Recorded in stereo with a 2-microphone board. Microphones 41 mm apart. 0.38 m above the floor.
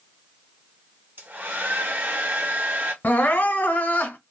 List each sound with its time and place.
1.2 s a hair dryer: 55° right (ahead or behind), 0.9 m
3.0 s crying: 50° left (ahead or behind), 1.0 m